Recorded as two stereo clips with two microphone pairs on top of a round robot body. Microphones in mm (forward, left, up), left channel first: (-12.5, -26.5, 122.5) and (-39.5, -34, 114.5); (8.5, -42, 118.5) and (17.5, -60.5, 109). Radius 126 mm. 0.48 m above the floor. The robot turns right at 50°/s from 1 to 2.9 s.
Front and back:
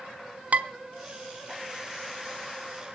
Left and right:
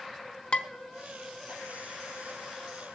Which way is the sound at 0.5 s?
170° left.